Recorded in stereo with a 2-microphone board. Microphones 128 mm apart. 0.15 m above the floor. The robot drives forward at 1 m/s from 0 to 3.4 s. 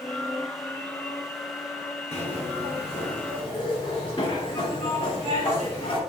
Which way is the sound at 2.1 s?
55° left (ahead or behind).